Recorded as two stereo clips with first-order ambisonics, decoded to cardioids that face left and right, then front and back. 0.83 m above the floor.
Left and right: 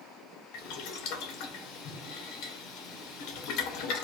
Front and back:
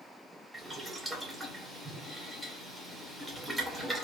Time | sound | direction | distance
0.5 | boiling | 90° left | 0.7 m